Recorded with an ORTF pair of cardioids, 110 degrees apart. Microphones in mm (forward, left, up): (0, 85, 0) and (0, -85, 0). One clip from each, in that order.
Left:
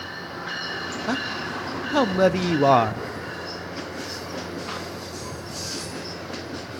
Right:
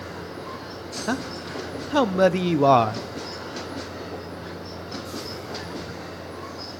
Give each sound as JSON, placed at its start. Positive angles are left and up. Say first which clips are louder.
{"t": 1.1, "sound": "a man speaking", "louder": "left 1 dB", "azimuth_deg": 0, "distance_m": 0.6}